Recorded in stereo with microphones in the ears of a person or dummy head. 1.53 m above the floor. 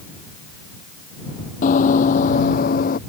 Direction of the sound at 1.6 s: 40° left (ahead or behind).